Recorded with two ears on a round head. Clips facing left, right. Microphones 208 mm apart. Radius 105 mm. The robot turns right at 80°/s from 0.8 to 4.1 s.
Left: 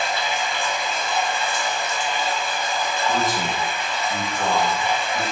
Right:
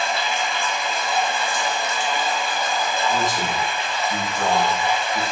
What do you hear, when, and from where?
0.0 s running water: 165° left, 1.1 m; by 5.3 s 70° left, 1.1 m
3.1 s a man speaking: 105° left, 0.6 m; by 5.2 s 175° right, 0.6 m